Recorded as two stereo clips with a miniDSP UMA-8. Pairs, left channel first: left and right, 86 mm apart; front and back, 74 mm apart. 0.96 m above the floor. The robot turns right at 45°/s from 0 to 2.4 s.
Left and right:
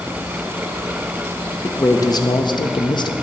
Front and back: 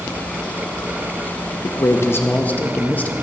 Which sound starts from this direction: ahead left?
A man speaking, at 1.6 s.